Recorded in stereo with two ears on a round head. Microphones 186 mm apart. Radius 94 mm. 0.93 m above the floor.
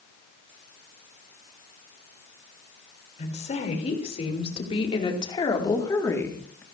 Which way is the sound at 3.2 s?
35° left (ahead or behind).